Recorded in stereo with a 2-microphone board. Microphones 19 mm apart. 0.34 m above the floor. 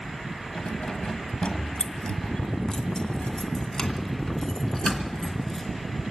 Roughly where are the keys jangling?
Left.